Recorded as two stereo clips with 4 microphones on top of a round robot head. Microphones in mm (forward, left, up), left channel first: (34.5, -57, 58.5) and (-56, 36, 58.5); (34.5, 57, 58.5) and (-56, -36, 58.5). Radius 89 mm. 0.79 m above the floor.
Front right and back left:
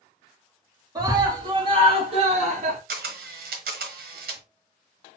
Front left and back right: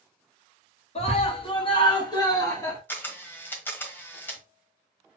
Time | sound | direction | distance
0.9 | a scream | 75° left | 2 m
2.9 | a camera shutter | 120° left | 1.2 m